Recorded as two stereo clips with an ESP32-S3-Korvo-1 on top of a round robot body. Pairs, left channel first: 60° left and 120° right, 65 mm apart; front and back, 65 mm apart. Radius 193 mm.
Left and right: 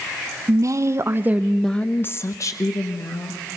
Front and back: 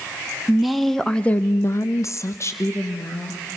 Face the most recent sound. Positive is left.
turn(degrees=50)